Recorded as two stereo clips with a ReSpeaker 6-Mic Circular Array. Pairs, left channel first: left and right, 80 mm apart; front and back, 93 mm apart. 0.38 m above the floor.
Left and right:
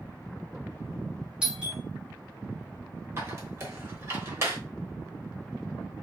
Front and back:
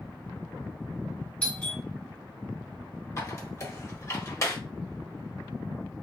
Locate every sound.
1.4 s a doorbell: 45° right, 1.2 m
3.2 s a squeak: 45° right, 1.0 m